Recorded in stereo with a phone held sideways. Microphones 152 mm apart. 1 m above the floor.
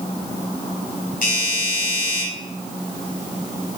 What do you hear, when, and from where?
1.2 s a doorbell: 70° left (ahead or behind), 6.5 m